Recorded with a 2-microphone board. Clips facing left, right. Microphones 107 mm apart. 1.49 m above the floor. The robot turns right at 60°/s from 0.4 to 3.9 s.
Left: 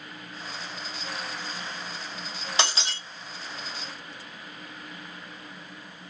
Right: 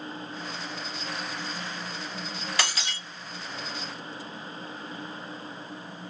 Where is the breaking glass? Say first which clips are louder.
Left 4 dB; 25° left (ahead or behind), 0.8 m; by 3.0 s 30° left (ahead or behind), 0.8 m.